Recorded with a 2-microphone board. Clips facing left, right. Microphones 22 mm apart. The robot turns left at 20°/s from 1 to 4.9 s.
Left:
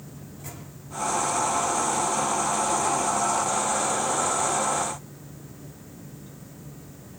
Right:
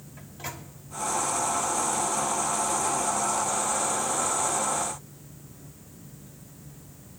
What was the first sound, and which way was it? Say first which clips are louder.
A microwave: right 6 dB; 55° right (ahead or behind).